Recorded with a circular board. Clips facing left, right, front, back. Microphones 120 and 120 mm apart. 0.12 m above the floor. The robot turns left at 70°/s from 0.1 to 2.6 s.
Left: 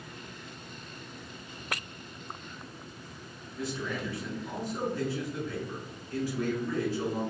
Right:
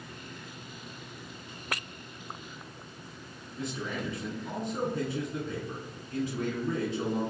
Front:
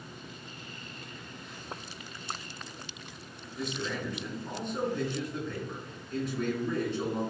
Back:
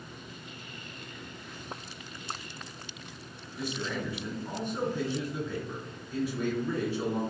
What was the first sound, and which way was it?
A man speaking, 105° right.